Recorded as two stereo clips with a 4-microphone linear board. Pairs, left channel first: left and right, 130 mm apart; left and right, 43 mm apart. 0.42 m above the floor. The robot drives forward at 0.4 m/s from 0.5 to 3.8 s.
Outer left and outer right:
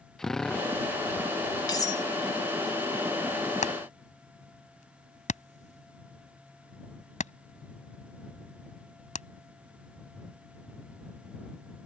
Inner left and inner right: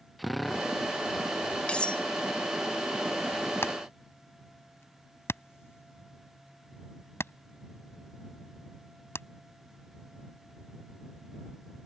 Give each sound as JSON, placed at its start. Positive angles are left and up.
{"t": 0.2, "sound": "a drill", "side_deg": 5}
{"t": 1.7, "sound": "cutlery clinking", "side_deg": 30}
{"t": 3.6, "sound": "hammering", "side_deg": 70}